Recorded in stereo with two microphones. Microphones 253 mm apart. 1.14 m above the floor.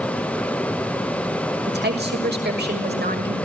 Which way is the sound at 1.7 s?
40° right (ahead or behind).